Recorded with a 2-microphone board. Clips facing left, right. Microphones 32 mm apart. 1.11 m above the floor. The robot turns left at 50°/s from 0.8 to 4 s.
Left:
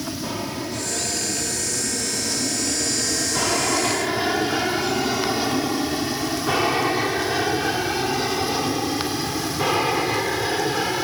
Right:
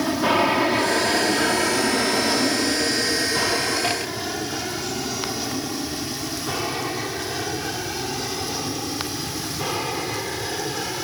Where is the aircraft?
50° right (ahead or behind); by 11.1 s 25° left (ahead or behind).